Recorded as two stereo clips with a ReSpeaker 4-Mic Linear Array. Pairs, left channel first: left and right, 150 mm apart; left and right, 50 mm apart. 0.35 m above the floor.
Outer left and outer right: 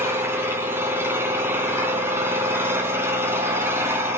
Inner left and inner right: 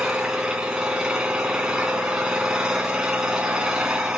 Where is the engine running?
15° right (ahead or behind), 3.5 m.